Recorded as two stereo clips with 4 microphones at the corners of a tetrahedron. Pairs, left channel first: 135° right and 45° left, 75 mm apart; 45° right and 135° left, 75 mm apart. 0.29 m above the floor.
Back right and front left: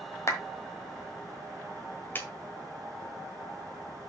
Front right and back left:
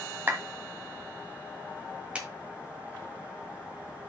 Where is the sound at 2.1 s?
165° right, 1.3 m.